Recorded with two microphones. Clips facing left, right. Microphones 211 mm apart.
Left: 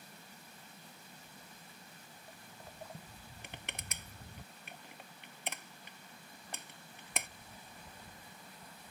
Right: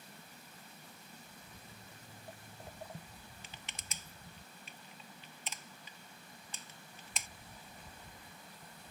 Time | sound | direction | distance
1.5 | footsteps | 65° right (ahead or behind) | ?
3.4 | crushing | 60° left (ahead or behind) | ?